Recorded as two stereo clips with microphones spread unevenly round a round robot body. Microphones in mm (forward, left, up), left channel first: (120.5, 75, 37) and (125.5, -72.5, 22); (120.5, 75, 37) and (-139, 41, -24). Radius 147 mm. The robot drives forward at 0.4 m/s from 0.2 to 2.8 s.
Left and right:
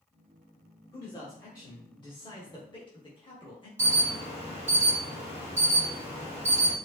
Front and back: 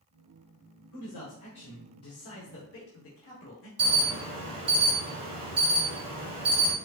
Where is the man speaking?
25° left, 1.8 m; by 3.7 s 45° left, 1.3 m.